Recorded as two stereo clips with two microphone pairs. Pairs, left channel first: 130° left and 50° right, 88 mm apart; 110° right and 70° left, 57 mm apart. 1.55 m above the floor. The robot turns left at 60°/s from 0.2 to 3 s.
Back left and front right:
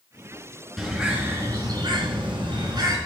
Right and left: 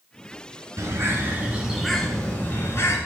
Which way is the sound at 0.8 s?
40° left.